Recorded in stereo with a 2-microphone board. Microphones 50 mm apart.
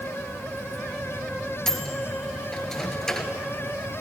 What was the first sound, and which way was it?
A microwave, 10° left (ahead or behind).